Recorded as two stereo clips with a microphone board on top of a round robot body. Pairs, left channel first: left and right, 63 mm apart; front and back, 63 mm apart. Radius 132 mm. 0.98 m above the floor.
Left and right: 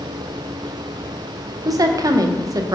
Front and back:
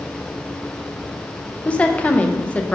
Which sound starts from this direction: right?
A woman speaking, at 1.6 s.